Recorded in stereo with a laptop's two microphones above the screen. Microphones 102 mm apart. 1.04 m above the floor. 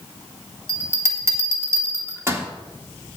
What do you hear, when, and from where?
0.7 s a bell: 30° right (ahead or behind), 2 m